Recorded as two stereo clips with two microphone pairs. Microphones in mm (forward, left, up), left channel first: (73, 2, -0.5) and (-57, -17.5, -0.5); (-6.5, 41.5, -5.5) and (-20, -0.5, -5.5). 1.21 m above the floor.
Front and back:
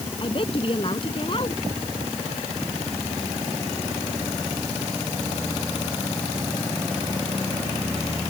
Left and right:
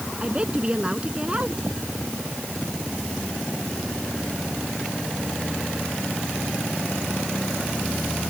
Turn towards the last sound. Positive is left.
turn(degrees=-40)